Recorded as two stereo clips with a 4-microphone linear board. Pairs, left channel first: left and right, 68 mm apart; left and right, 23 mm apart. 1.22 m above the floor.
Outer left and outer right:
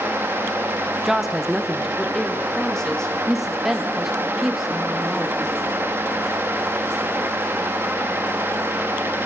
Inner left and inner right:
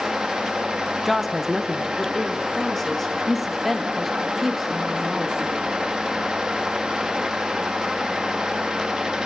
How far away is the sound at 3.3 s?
About 2.5 m.